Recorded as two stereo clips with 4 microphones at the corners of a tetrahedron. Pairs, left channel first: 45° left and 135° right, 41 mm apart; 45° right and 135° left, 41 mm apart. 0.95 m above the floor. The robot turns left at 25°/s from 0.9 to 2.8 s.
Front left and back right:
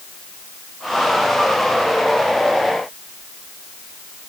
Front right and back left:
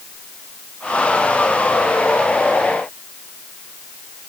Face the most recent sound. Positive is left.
No sound to turn to.